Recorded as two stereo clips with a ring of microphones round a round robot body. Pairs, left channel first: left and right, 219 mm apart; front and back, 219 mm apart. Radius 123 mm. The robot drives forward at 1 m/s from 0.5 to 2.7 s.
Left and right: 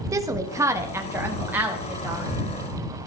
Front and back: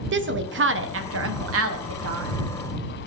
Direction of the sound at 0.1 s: 165° right.